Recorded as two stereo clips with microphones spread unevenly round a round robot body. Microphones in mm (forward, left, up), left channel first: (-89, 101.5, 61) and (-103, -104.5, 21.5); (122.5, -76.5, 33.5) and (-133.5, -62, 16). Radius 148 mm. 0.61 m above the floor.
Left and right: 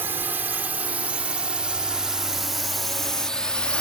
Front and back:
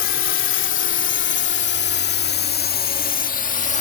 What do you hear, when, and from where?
0.0 s a drone: 25° right; by 3.8 s 15° right